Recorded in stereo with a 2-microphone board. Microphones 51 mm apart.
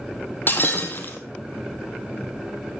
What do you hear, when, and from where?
0.5 s breaking glass: 45° left (ahead or behind), 2.5 m